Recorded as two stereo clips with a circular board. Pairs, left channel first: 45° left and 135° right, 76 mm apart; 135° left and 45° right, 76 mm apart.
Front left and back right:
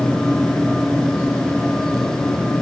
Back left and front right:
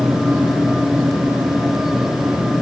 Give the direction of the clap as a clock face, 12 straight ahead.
I don't hear a clap.